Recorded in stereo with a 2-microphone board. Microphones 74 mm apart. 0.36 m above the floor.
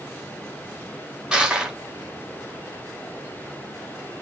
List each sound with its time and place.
1.3 s crushing: 15° right (ahead or behind), 1.0 m